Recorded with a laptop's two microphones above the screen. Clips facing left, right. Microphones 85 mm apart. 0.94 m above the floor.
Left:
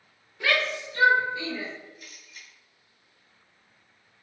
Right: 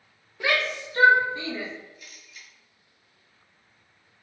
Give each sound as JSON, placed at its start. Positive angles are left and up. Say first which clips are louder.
{"t": 0.4, "sound": "a shout", "louder": "even", "side_deg": -15, "distance_m": 0.7}
{"t": 2.0, "sound": "a camera shutter", "louder": "even", "side_deg": 45, "distance_m": 1.5}